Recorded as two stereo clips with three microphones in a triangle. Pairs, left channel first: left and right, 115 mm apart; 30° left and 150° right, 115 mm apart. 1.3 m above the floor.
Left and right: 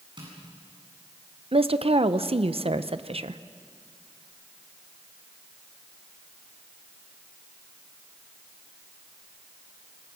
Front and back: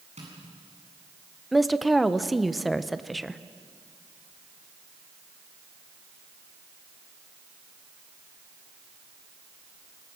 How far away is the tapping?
About 9 m.